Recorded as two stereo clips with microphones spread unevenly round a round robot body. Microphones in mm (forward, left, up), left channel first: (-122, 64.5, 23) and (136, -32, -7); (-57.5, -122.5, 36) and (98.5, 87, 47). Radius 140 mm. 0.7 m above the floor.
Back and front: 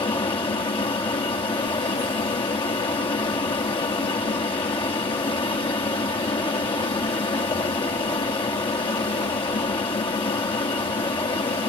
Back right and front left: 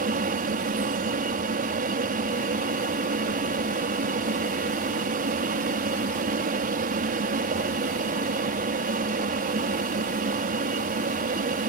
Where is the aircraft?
90° left.